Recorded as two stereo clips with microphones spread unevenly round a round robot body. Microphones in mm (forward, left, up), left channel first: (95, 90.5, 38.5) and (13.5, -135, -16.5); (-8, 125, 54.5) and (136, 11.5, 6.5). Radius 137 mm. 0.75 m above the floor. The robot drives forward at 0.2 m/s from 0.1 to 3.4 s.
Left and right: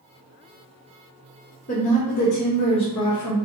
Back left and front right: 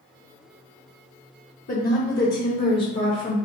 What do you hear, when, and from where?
1.7 s a woman speaking: 130° left, 1.0 m; by 3.4 s 150° left, 1.1 m